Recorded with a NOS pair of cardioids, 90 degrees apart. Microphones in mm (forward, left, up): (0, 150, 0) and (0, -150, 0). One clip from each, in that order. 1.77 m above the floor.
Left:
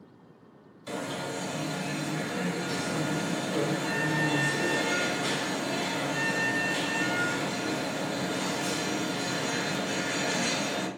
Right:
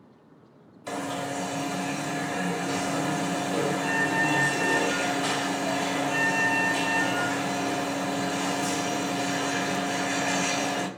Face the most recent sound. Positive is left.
turn(degrees=-40)